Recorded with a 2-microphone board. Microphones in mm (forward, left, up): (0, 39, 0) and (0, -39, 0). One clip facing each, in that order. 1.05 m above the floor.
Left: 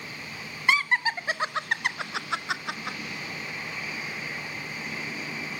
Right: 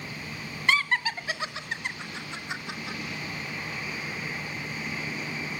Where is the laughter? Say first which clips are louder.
Left 1 dB; 15° left (ahead or behind), 1.2 m; by 3.0 s 55° left (ahead or behind), 1.2 m.